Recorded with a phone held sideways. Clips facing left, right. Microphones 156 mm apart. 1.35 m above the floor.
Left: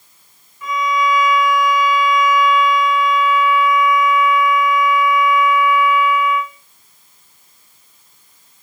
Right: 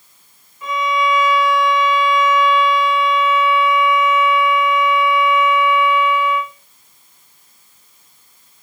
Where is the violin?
25° right (ahead or behind), 1.4 m.